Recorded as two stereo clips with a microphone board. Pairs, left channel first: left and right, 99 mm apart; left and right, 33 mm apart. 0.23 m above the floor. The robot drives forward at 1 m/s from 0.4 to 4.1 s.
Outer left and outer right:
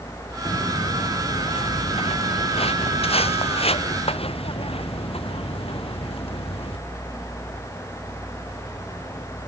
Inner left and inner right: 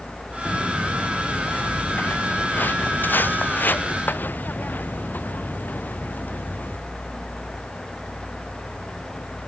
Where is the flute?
No flute in this recording.